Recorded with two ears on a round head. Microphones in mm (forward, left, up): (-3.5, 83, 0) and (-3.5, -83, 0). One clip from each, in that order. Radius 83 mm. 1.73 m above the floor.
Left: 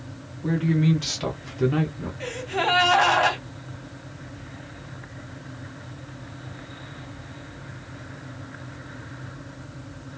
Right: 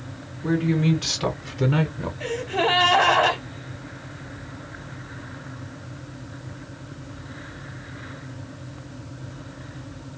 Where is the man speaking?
15° left (ahead or behind), 1.6 m; by 2.1 s 35° right (ahead or behind), 0.6 m.